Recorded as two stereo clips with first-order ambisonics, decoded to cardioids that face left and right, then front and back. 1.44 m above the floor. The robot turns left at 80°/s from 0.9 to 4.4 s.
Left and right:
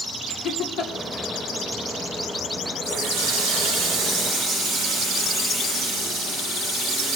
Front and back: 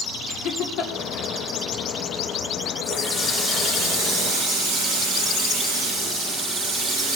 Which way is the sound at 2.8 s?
40° right.